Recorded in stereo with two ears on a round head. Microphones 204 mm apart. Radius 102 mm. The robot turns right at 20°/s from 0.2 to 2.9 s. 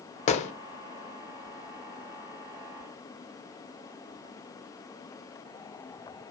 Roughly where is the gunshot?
Left.